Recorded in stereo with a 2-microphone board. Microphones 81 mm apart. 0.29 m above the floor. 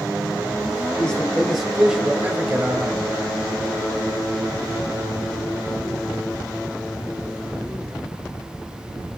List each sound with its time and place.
1.0 s a man speaking: 15° left (ahead or behind), 1.5 m; by 3.3 s 40° right (ahead or behind), 1.8 m